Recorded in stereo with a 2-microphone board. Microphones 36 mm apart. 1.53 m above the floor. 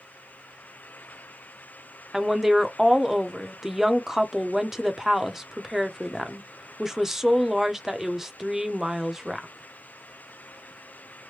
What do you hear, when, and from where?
2.1 s a woman speaking: 5° right (ahead or behind), 0.6 m